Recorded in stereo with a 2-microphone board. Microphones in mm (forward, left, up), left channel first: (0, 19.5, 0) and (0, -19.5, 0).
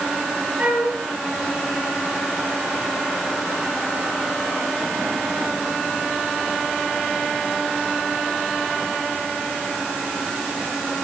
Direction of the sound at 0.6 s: 45° right (ahead or behind).